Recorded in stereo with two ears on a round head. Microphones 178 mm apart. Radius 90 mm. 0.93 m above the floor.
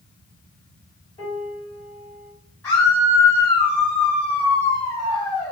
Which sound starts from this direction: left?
A piano, at 1.2 s.